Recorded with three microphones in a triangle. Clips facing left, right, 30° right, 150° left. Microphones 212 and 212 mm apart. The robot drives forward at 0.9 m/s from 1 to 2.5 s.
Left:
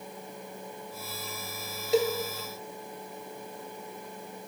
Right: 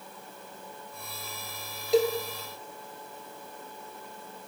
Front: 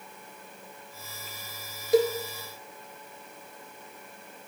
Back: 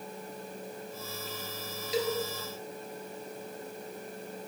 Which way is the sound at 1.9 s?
Straight ahead.